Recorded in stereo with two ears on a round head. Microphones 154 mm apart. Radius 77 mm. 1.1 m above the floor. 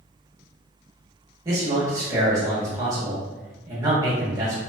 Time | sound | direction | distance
1.4 | a man speaking | 20° right (ahead or behind) | 1.0 m